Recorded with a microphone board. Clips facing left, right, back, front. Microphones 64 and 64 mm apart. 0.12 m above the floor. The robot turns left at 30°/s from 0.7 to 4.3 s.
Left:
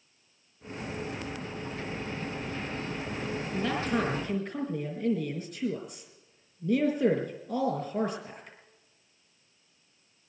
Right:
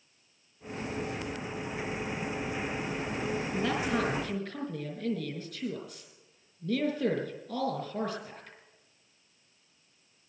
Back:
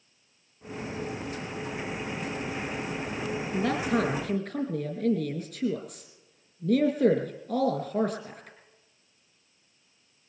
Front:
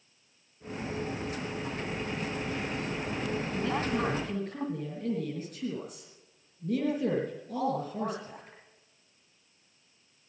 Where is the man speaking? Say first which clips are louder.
Left 2 dB, back 6 dB; 165° right, 4.5 m; by 8.6 s 170° left, 4.5 m.